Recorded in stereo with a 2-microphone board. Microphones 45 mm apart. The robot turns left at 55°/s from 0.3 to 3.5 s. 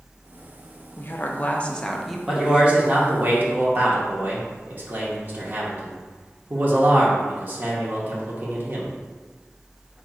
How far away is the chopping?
I don't hear chopping.